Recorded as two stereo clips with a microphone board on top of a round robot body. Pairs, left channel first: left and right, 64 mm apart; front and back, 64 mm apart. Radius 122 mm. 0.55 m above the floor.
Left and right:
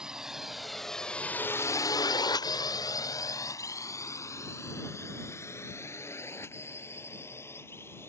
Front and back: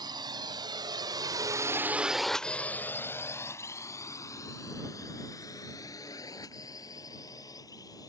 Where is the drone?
170° right; by 8.1 s 35° left.